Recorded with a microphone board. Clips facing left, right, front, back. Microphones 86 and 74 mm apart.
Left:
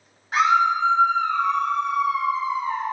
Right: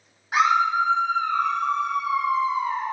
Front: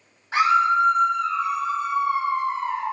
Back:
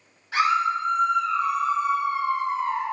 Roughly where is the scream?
Ahead.